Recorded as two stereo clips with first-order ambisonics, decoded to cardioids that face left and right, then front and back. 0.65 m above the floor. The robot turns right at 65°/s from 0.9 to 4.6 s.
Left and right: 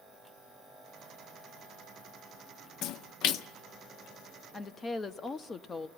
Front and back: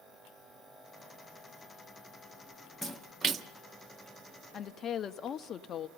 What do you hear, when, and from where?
2.8 s a splash: 80° left, 0.6 m; by 3.5 s 125° left, 0.6 m
4.5 s a woman speaking: 25° left, 0.5 m; by 5.9 s 30° left, 0.5 m